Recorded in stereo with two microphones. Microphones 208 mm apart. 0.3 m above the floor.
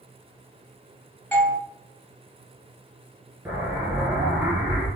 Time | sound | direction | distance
1.3 | a doorbell | 10° left (ahead or behind) | 1.3 m
3.5 | an explosion | 10° right (ahead or behind) | 1.0 m